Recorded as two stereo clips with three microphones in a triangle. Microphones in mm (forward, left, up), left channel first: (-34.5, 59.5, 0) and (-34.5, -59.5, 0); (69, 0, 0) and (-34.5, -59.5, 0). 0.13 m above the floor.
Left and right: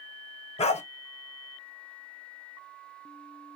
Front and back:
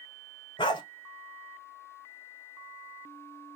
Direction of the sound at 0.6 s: 70° left.